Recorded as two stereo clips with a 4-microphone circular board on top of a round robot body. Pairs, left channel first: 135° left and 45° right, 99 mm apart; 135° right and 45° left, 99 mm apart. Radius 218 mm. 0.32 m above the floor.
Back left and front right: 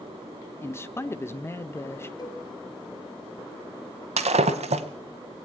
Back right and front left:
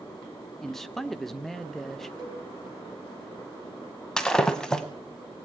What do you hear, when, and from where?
0.6 s a man speaking: 140° left, 0.9 m
2.2 s a cowbell: 80° left, 4.5 m
4.2 s breaking glass: 50° right, 0.6 m